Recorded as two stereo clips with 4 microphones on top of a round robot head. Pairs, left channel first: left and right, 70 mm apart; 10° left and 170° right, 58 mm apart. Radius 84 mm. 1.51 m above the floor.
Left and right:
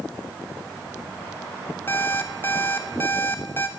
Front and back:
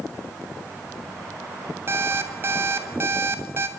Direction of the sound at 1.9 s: 160° left.